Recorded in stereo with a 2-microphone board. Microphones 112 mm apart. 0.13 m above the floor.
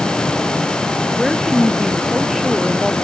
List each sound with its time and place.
1.2 s a woman speaking: centre (ahead or behind)